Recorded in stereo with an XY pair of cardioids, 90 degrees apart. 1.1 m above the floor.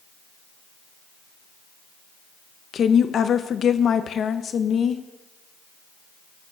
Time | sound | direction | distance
2.7 | a woman speaking | 60° left | 0.7 m